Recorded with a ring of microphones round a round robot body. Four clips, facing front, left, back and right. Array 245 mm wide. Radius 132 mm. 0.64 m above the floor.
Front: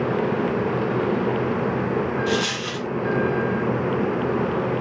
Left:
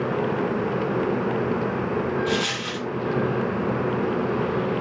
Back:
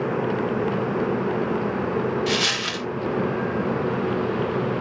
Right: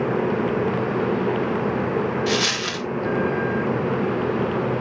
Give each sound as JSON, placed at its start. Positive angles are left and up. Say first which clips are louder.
{"t": 2.3, "sound": "a dropped coin", "louder": "right 2 dB, front 1 dB", "azimuth_deg": -130, "distance_m": 0.5}